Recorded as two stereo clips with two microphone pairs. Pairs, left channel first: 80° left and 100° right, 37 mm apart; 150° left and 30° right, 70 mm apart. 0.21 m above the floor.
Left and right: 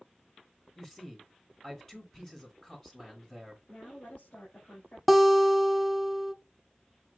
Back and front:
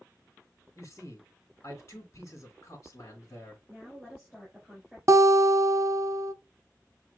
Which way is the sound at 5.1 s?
10° right.